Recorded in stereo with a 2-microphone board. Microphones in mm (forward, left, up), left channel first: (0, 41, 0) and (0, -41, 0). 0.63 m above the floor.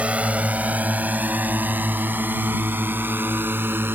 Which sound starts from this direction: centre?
A drone, at 0.0 s.